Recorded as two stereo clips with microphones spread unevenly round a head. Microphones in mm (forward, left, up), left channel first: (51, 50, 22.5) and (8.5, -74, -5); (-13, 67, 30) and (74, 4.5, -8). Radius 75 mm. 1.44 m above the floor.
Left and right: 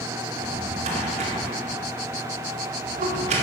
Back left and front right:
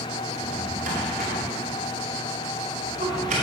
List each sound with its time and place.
0.3 s a drawer: 75° right, 2.5 m